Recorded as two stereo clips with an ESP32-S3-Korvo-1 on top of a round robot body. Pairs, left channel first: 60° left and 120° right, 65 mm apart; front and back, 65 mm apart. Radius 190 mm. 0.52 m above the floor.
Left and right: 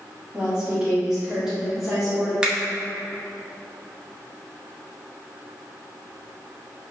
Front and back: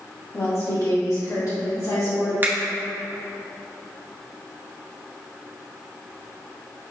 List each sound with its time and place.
0.3 s a woman speaking: 45° right, 2.0 m; by 2.3 s 30° right, 3 m
2.4 s a finger snap: 175° left, 1.0 m